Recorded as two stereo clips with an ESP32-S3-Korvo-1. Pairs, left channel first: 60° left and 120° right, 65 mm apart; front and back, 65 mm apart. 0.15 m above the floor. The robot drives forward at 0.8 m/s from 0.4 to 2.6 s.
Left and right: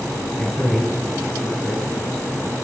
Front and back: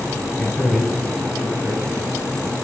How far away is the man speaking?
About 1.5 m.